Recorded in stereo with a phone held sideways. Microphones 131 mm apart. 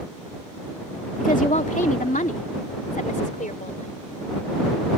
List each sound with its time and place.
1.2 s a woman speaking: 75° left (ahead or behind); by 3.9 s 85° left